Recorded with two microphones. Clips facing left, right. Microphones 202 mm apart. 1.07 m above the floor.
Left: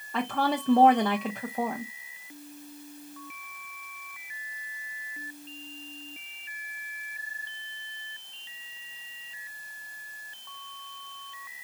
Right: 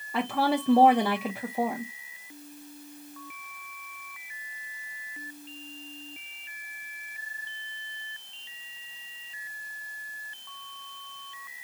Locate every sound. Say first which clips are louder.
0.1 s a woman speaking: right 2 dB; 10° right (ahead or behind), 0.6 m